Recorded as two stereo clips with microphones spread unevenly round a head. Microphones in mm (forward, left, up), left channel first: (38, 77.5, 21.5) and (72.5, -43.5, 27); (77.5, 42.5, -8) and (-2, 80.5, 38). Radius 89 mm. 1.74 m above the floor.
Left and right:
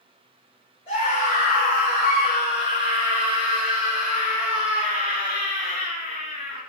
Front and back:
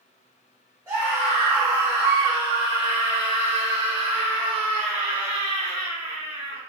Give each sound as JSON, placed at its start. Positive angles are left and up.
{"t": 0.9, "sound": "a scream", "azimuth_deg": 105, "distance_m": 6.5}